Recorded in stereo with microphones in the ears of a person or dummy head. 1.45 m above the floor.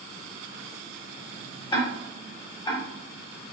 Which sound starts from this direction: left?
Ticking, at 1.7 s.